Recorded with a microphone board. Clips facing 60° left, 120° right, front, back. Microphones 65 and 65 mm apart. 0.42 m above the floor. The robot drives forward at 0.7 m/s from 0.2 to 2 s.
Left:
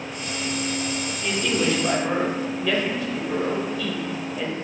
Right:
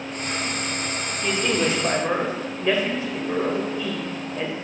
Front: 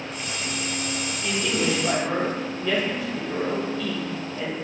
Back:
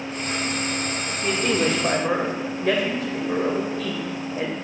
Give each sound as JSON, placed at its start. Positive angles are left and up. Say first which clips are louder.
{"t": 1.2, "sound": "a man speaking", "louder": "right 1 dB, back 4 dB", "azimuth_deg": 180, "distance_m": 1.0}